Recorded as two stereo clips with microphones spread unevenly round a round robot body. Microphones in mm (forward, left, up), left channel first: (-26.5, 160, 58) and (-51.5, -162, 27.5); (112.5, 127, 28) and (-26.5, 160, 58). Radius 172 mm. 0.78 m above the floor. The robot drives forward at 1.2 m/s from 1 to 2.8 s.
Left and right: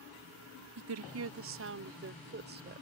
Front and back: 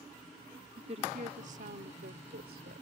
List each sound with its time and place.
0.8 s a woman speaking: 130° right; by 2.8 s 155° right